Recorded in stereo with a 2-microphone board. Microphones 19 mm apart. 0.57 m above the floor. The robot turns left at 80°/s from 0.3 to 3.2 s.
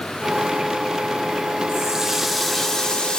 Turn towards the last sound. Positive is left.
turn(degrees=115)